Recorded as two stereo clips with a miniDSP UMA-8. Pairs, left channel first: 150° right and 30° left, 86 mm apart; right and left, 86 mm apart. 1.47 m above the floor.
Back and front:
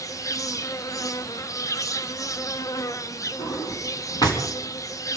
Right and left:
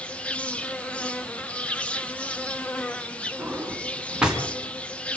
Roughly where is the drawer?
Behind.